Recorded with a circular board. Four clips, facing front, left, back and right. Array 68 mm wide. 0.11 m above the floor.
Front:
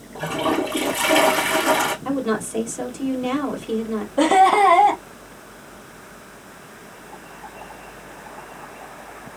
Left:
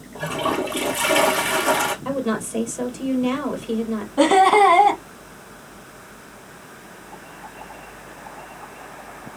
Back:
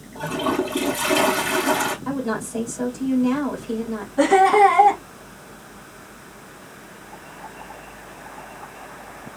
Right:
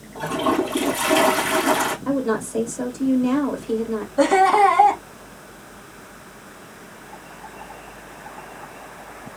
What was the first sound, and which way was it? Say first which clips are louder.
A toilet flushing: right 2 dB, front 1 dB; 40° left.